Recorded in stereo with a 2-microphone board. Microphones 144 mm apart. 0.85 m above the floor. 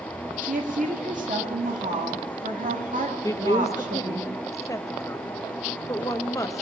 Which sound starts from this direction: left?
A woman speaking, at 3.2 s.